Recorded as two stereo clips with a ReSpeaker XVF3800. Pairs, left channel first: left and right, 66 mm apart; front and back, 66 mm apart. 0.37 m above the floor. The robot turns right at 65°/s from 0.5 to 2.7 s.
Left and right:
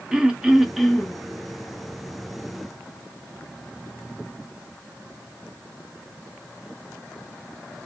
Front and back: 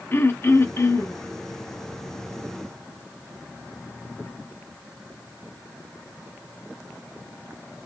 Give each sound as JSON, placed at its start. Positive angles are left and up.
{"t": 0.1, "sound": "throat clearing", "azimuth_deg": -20, "distance_m": 0.5}